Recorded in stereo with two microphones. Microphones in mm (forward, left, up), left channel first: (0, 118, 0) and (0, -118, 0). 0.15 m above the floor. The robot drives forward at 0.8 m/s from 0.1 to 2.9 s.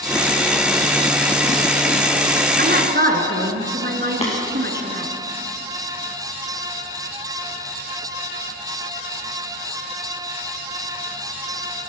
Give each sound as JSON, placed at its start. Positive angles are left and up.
{"t": 2.6, "sound": "a woman speaking", "side_deg": -45, "distance_m": 1.4}
{"t": 4.2, "sound": "tapping", "side_deg": 25, "distance_m": 4.0}